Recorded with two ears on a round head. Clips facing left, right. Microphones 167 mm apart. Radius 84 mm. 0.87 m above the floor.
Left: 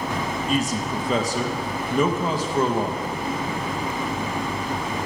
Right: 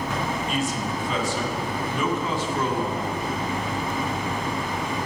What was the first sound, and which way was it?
A man speaking, 35° left (ahead or behind).